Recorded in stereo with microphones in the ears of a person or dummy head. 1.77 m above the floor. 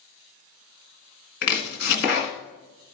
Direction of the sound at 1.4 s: 40° left (ahead or behind).